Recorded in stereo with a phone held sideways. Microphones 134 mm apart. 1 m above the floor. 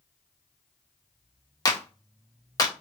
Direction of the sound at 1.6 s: 30° left (ahead or behind).